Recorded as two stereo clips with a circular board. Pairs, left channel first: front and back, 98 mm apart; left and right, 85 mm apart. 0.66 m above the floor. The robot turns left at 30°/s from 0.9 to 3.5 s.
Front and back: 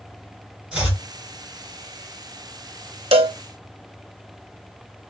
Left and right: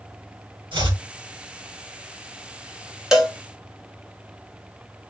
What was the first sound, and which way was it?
Chopping, 95° right.